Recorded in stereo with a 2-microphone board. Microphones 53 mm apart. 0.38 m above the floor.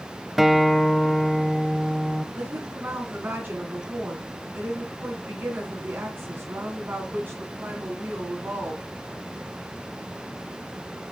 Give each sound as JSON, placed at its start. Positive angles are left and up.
{"t": 0.4, "sound": "a guitar", "side_deg": -5, "distance_m": 0.6}
{"t": 2.4, "sound": "a woman speaking", "side_deg": -40, "distance_m": 3.0}